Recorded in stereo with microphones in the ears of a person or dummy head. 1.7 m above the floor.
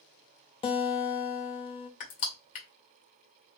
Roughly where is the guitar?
Left.